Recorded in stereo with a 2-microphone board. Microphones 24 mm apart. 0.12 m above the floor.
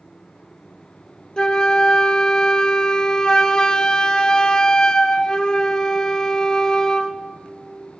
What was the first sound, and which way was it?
A flute, 30° left (ahead or behind).